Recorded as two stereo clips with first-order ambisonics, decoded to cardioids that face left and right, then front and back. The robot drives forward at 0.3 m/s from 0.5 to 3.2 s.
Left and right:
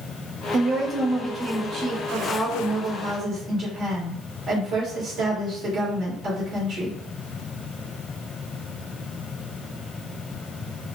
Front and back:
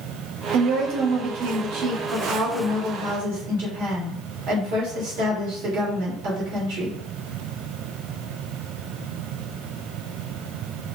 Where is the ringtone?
No ringtone in this recording.